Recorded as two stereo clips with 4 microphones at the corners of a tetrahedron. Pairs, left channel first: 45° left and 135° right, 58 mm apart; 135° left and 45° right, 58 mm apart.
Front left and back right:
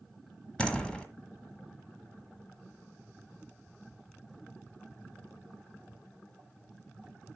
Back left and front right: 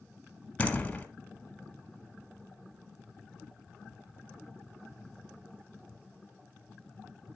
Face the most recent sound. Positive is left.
turn(degrees=105)